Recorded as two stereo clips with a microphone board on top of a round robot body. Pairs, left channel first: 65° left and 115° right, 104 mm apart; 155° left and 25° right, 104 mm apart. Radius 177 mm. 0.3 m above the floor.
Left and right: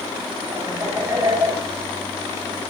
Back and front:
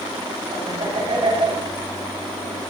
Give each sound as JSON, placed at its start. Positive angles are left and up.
{"t": 0.5, "sound": "laughter", "azimuth_deg": -50, "distance_m": 6.0}